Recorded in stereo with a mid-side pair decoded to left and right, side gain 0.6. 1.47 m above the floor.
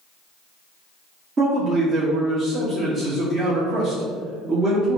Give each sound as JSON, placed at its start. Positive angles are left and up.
{"t": 1.4, "sound": "a man speaking", "azimuth_deg": -40, "distance_m": 1.0}